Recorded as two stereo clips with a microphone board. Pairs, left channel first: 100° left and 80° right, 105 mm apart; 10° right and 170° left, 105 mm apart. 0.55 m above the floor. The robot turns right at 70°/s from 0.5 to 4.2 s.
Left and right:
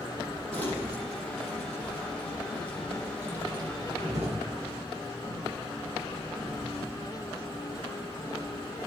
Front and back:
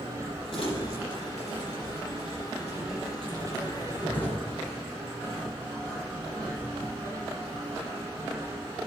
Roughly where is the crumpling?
Ahead.